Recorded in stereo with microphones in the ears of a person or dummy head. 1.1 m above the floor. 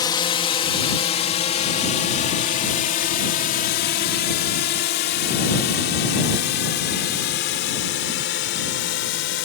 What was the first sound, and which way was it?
A drone, 25° left (ahead or behind).